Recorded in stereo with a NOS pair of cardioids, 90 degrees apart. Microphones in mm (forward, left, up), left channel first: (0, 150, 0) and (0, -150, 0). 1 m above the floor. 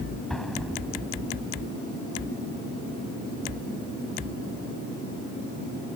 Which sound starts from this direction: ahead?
An explosion, at 0.3 s.